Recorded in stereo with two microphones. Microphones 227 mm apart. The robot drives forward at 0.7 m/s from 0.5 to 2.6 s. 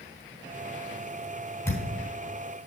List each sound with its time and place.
1.6 s a thud: 10° left (ahead or behind), 4 m